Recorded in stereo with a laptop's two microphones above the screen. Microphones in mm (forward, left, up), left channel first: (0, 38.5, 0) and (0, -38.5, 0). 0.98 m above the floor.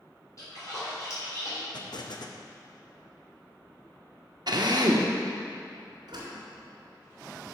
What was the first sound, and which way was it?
A splash, 45° left (ahead or behind).